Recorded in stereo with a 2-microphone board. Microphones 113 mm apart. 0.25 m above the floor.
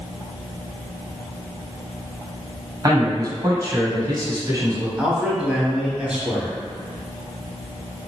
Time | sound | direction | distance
2.8 | a man speaking | 35° right (ahead or behind) | 1.3 m
5.0 | a man speaking | 10° right (ahead or behind) | 1.2 m